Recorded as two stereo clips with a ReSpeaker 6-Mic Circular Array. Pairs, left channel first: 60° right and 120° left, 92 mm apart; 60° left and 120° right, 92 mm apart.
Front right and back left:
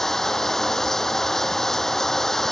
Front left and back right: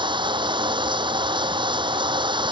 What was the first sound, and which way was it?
Running water, 145° right.